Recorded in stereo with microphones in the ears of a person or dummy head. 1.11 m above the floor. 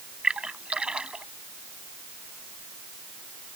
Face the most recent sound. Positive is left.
turn(degrees=-5)  # may be behind; listen again after turning